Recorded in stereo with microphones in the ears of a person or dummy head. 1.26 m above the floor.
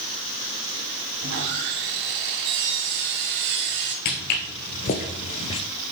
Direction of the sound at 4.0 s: 45° left (ahead or behind).